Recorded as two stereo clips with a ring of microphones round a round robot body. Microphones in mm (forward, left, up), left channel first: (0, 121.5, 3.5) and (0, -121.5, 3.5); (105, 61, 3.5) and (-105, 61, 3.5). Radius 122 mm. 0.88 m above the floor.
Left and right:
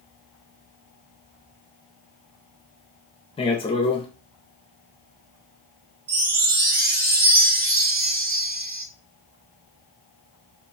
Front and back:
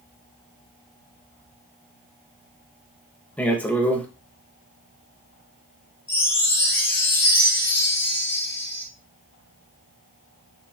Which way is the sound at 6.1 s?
75° right.